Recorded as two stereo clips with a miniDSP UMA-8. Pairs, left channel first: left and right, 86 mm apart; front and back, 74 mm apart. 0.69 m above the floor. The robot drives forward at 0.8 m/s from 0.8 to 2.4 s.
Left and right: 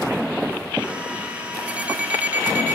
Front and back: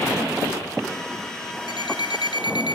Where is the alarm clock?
15° right, 2.5 m; by 2.8 s 20° right, 1.8 m.